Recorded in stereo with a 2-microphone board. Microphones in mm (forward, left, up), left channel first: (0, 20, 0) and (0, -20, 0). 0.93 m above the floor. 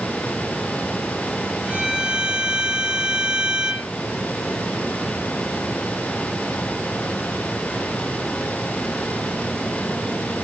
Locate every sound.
1.7 s a violin: 30° right (ahead or behind), 5.5 m